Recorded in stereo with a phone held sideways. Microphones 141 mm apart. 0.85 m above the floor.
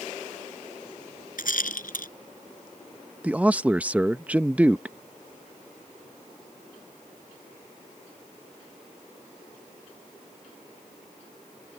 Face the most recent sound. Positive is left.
turn(degrees=-10)  # may be behind; listen again after turning